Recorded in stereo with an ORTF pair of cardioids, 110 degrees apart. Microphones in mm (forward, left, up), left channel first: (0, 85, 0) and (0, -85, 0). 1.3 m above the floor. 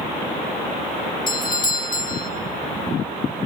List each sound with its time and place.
1.3 s a doorbell: 50° left, 2.5 m